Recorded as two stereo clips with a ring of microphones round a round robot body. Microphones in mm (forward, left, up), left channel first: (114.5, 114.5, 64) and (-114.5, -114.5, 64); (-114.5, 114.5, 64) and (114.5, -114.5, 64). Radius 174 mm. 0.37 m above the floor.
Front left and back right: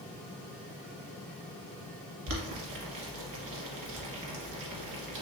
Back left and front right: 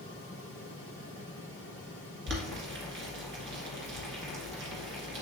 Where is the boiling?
100° right, 1.9 m.